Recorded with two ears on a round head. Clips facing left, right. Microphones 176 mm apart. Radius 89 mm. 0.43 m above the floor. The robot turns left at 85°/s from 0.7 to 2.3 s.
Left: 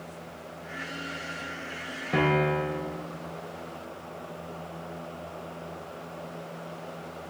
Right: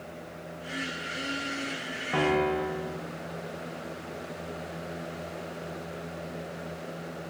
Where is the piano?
25° left (ahead or behind), 6.5 m; by 3.0 s 10° left (ahead or behind), 6.5 m.